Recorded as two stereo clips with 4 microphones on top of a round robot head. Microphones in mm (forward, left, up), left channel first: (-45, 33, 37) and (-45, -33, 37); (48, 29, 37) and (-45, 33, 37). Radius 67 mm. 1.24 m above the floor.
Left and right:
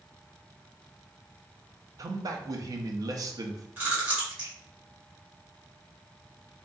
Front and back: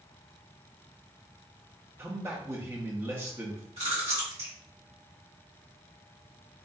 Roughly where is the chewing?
Behind right.